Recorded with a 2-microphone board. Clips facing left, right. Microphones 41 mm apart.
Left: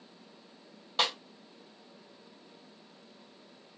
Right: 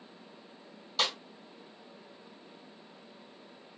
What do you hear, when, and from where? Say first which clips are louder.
1.0 s a snare drum: left 1 dB; 35° left (ahead or behind), 1.7 m